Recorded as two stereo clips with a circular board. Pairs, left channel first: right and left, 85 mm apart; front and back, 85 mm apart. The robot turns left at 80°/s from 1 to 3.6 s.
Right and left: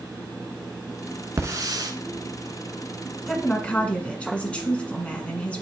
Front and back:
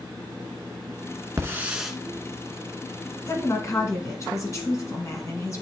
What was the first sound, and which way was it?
A hiss, 135° left.